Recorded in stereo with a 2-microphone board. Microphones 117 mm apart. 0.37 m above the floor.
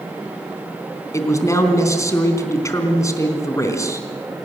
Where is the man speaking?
25° left (ahead or behind), 3.5 m.